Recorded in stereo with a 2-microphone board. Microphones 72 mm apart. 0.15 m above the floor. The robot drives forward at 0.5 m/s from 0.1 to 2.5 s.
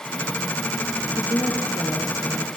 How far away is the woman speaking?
About 3.5 m.